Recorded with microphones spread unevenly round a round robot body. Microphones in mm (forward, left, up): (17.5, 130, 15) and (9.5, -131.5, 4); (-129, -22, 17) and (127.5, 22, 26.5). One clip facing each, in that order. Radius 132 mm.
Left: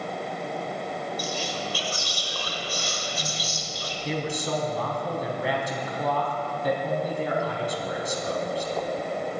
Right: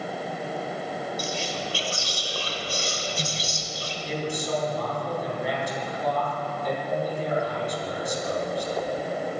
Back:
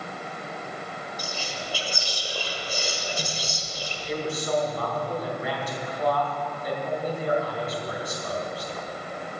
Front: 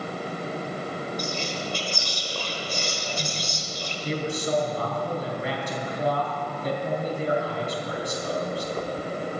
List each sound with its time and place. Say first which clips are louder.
1.2 s whispering: even, front 5 dB; 95° right, 1.6 m
4.0 s a man speaking: even, front 1 dB; 70° left, 3.5 m